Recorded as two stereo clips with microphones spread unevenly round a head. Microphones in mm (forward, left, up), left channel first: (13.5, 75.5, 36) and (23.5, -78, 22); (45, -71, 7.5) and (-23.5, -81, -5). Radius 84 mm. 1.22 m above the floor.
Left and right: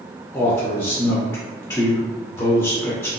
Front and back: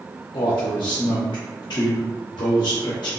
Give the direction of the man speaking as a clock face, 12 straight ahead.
11 o'clock.